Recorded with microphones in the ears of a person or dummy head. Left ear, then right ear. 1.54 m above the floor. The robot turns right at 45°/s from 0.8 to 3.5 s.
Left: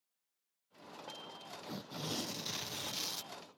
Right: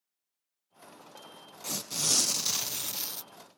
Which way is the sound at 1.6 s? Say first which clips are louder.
Right 13 dB; 70° right.